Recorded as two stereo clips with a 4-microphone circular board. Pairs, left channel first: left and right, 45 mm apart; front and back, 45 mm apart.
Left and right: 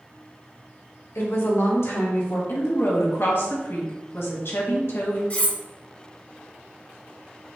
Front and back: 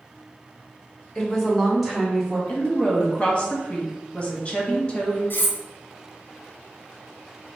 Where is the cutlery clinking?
35° left, 0.6 m.